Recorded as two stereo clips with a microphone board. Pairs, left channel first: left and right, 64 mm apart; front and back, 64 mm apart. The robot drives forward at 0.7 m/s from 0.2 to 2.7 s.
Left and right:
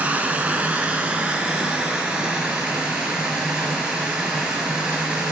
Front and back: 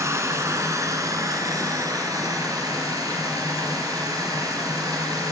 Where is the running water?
155° right, 2 m; by 5.3 s 165° right, 3.5 m.